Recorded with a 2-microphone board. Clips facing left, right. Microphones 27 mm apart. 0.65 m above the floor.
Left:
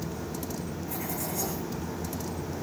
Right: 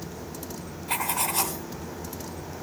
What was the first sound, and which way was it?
Writing, 65° right (ahead or behind).